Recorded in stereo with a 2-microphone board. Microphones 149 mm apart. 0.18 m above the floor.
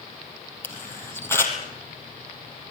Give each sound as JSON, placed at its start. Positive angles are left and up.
{"t": 0.6, "sound": "a camera shutter", "side_deg": 15, "distance_m": 4.0}